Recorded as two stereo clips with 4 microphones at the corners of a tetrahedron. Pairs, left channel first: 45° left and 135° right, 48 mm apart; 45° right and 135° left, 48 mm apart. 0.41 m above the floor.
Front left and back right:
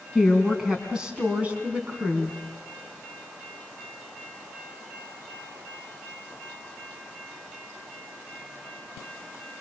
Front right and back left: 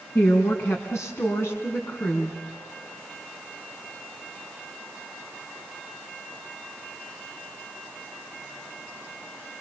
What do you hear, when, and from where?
0.1 s a woman speaking: 50° right, 3.5 m; by 2.4 s 90° right, 3.5 m